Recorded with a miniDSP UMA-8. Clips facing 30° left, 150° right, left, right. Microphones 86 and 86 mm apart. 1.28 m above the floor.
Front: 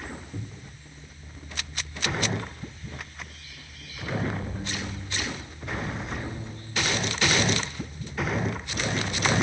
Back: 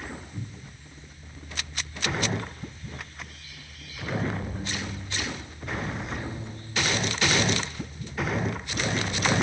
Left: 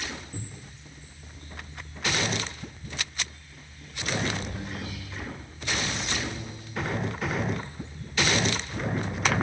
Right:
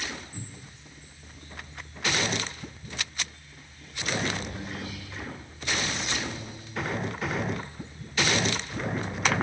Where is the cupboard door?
45° left, 2.5 m.